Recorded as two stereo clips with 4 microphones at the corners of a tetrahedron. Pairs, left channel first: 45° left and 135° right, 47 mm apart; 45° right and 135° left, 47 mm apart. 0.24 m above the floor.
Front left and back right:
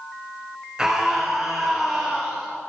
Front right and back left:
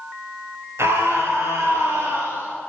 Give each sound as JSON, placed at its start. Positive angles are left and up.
{"t": 0.8, "sound": "a scream", "azimuth_deg": 145, "distance_m": 3.5}